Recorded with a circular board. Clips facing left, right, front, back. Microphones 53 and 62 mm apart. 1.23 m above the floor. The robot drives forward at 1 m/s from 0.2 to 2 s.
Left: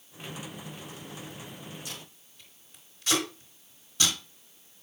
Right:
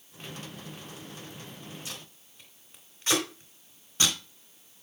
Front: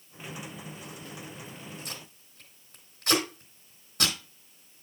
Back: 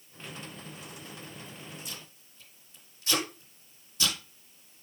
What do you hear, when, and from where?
1.9 s tape being pulled: 30° right, 3.5 m